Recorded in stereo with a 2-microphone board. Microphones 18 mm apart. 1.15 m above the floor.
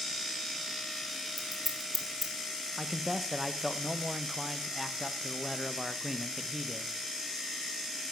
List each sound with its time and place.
1.4 s scissors: 15° right (ahead or behind), 1.8 m
2.8 s a man speaking: 15° right (ahead or behind), 0.7 m